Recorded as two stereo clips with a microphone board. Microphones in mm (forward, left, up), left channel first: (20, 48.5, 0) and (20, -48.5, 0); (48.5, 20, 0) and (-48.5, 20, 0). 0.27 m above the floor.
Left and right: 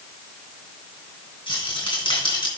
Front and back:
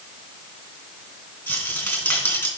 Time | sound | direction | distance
1.5 | a rattle | 70° left | 2.5 m